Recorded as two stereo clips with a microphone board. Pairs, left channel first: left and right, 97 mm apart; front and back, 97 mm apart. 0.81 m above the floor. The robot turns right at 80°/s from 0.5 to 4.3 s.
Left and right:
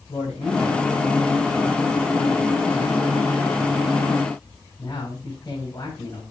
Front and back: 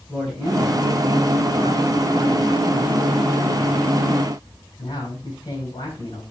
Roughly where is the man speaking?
Left.